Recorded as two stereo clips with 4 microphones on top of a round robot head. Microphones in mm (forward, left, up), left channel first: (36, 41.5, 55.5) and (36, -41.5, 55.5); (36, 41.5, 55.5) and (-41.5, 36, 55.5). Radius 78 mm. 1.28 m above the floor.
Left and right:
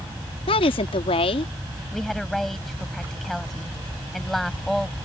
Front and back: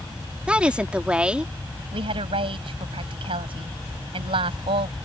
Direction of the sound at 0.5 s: 105° left.